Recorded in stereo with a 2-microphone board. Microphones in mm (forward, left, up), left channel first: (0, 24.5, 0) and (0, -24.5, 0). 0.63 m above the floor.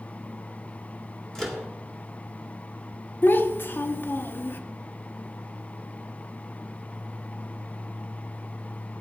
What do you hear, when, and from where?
1.4 s a microwave: 5° left (ahead or behind), 1.6 m
3.2 s a child speaking: 40° left (ahead or behind), 0.8 m